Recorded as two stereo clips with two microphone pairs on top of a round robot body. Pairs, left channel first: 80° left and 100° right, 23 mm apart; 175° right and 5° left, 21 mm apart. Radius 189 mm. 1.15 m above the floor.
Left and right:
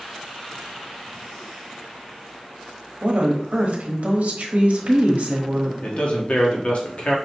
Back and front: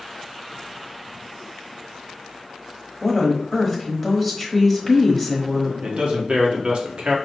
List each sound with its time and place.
3.0 s a woman speaking: 80° right, 1.1 m
5.8 s a man speaking: 40° left, 1.3 m